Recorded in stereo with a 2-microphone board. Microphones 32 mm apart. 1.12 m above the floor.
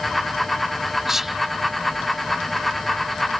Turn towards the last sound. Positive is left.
turn(degrees=-15)  # may be behind; listen again after turning